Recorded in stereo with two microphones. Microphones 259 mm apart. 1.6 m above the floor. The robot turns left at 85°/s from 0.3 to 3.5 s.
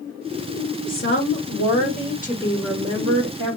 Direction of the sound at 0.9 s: 150° left.